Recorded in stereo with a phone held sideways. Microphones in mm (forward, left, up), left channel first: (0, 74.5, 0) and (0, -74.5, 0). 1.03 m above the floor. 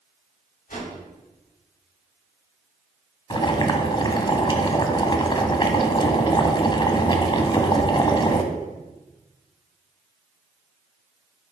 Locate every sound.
0.7 s a whoosh: 70° left (ahead or behind), 6.5 m
3.3 s boiling: 30° left (ahead or behind), 1.4 m